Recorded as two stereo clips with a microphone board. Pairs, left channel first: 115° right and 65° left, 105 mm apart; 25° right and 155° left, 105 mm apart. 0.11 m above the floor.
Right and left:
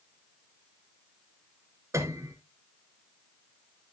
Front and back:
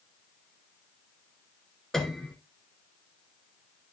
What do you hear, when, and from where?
1.9 s a piano: 60° left, 1.6 m